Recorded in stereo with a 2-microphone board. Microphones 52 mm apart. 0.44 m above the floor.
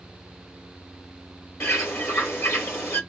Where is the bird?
50° left (ahead or behind), 2 m.